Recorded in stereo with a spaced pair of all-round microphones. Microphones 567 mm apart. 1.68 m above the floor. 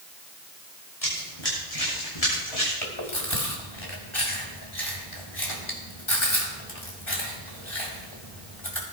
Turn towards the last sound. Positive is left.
turn(degrees=55)  # may be behind; listen again after turning